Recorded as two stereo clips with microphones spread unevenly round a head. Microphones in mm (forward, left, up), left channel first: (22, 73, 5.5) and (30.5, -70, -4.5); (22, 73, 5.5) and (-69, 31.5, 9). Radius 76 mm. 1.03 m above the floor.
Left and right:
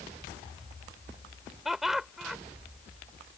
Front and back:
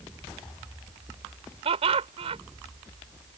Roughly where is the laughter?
Behind.